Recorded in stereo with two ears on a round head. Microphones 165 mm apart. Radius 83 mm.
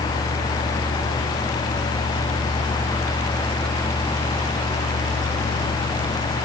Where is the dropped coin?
I don't hear a dropped coin.